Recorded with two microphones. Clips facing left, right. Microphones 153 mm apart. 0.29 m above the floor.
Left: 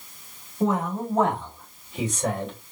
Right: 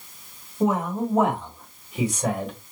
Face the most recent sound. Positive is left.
turn(degrees=-5)  # may be behind; listen again after turning